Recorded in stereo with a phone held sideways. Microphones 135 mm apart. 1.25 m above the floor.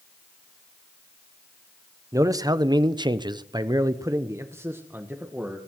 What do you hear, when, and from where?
2.1 s a man speaking: 25° right (ahead or behind), 0.8 m; by 5.6 s 10° right (ahead or behind), 1.5 m